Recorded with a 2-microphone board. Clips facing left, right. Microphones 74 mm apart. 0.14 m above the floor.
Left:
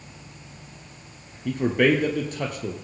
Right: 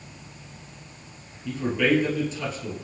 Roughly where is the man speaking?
Left.